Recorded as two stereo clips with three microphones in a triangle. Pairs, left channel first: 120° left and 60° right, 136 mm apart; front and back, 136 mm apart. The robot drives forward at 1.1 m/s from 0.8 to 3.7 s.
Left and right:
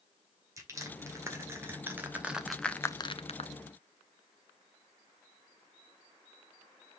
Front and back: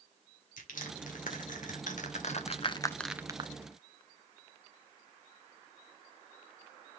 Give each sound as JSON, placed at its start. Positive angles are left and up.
{"t": 0.6, "sound": "crushing", "azimuth_deg": 10, "distance_m": 2.5}